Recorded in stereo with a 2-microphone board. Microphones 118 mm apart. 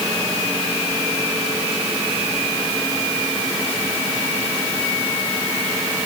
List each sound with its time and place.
Only background noise.